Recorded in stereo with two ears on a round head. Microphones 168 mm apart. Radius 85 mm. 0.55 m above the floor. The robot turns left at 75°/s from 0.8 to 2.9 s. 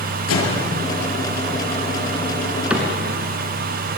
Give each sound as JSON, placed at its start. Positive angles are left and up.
{"t": 0.3, "sound": "a microwave", "side_deg": 75, "distance_m": 7.5}
{"t": 2.7, "sound": "a cupboard door", "side_deg": -5, "distance_m": 3.5}